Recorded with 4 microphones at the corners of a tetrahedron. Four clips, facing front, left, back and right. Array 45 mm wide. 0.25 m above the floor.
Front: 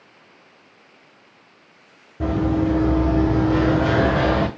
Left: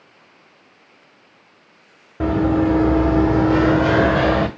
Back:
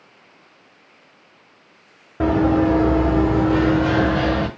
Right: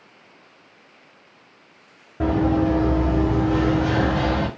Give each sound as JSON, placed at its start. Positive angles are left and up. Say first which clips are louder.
{"t": 2.2, "sound": "running footsteps", "louder": "left 2 dB, back 4 dB", "azimuth_deg": 160, "distance_m": 0.8}